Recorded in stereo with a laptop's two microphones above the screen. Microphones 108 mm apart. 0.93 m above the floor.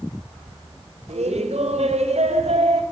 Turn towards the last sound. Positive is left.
turn(degrees=-85)